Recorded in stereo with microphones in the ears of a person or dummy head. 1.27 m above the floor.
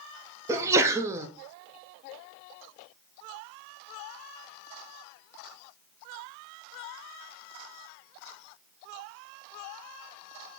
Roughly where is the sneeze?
Centre.